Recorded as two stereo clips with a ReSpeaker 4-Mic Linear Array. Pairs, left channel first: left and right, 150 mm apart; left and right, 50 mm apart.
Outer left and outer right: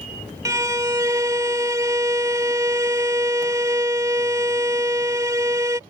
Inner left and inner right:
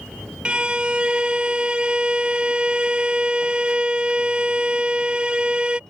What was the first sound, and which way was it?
A violin, 20° right (ahead or behind).